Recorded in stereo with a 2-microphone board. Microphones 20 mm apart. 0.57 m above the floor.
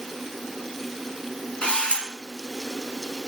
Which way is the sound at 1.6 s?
55° left (ahead or behind).